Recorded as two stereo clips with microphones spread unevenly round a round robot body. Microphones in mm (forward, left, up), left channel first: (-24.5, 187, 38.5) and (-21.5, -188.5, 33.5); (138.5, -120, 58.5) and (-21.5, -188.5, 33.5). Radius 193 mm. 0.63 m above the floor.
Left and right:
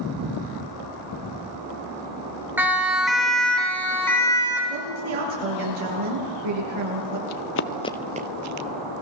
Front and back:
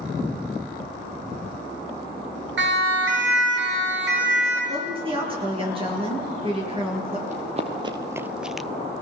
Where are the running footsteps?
130° left, 1.1 m; by 8.7 s 60° right, 0.9 m.